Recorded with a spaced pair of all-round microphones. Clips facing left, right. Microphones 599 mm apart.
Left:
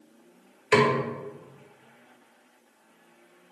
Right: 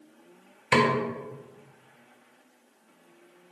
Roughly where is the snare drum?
Right.